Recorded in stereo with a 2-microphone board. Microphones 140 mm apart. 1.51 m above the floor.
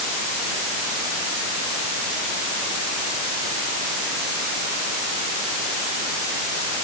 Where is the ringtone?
No ringtone in this recording.